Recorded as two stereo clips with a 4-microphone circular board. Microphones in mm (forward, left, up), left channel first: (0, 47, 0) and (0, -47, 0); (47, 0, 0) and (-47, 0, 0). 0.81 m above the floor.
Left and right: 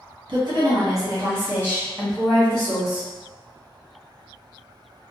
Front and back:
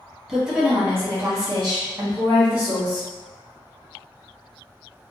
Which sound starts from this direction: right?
A woman speaking, at 0.3 s.